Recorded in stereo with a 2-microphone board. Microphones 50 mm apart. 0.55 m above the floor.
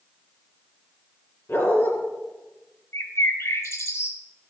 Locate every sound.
1.5 s a dog barking: 45° left (ahead or behind), 2.5 m
2.9 s a bird: 60° left (ahead or behind), 1.2 m